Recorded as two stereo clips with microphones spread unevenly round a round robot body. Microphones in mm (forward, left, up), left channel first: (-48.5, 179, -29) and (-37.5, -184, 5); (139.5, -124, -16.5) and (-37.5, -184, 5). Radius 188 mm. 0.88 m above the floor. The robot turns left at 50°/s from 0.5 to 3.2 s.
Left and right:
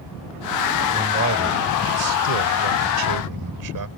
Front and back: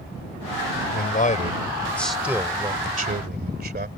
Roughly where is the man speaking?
Ahead.